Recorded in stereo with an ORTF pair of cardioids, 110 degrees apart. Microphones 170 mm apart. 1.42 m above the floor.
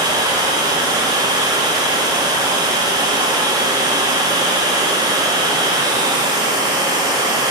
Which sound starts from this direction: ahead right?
Running water, at 0.0 s.